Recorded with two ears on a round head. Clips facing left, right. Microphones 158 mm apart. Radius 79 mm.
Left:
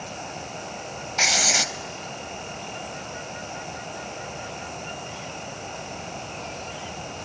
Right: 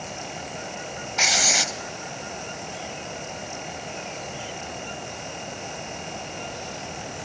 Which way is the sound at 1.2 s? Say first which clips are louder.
Even; centre (ahead or behind).